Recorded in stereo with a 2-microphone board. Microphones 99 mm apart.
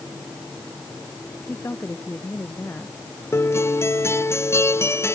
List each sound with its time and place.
1.5 s a woman speaking: 25° left (ahead or behind)
3.3 s a guitar: 25° left (ahead or behind)